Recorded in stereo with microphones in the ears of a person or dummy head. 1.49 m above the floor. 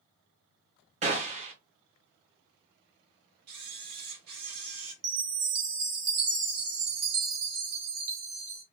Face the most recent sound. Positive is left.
turn(degrees=-75)  # may be behind; listen again after turning